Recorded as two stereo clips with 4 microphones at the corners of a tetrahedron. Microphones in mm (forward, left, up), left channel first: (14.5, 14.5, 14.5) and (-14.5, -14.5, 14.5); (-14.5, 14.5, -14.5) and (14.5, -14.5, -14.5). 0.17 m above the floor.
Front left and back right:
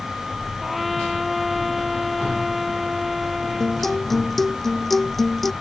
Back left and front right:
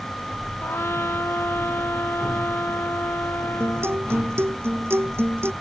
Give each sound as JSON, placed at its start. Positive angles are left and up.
{"t": 0.6, "sound": "a trumpet", "azimuth_deg": 140}
{"t": 3.6, "sound": "a guitar", "azimuth_deg": -40}